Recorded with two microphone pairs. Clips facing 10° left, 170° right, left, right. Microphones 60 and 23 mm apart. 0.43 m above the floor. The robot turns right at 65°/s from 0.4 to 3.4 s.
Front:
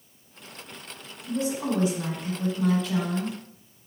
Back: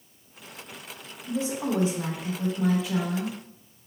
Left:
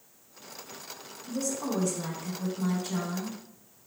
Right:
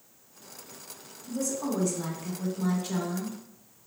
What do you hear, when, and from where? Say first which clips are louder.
1.3 s a woman speaking: front 1 dB, right 1 dB; 145° left, 0.9 m; by 3.4 s 80° right, 0.9 m